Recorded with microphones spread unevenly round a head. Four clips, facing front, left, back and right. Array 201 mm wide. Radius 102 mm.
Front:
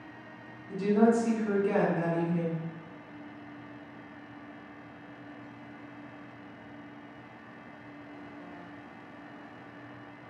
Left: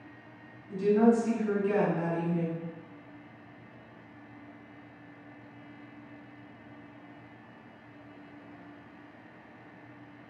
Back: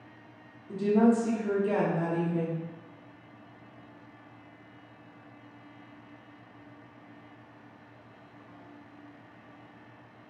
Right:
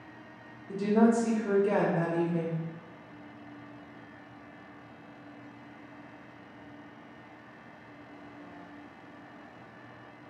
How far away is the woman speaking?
About 1.1 m.